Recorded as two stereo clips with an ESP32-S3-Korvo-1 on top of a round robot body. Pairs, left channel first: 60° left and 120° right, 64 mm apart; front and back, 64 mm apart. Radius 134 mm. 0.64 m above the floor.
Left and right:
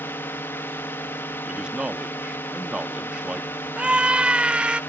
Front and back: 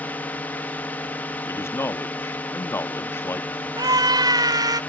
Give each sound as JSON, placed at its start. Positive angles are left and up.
{"t": 0.0, "sound": "a drone", "azimuth_deg": 45}
{"t": 1.4, "sound": "a man speaking", "azimuth_deg": -45}
{"t": 3.8, "sound": "a scream", "azimuth_deg": 165}